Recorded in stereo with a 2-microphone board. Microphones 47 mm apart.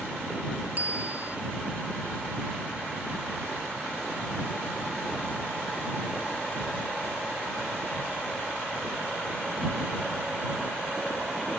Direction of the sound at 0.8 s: 35° right (ahead or behind).